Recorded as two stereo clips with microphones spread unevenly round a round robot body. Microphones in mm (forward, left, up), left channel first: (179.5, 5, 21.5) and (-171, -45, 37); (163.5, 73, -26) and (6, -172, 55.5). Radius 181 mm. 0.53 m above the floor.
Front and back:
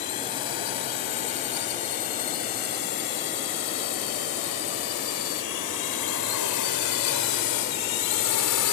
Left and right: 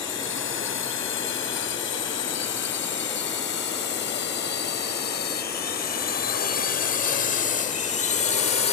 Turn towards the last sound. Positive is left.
turn(degrees=20)